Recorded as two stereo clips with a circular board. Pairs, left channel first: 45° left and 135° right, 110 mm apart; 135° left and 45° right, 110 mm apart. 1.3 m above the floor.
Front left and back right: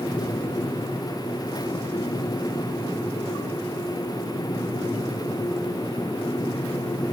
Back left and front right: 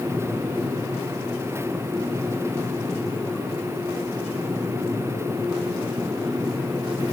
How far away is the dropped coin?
No dropped coin in this recording.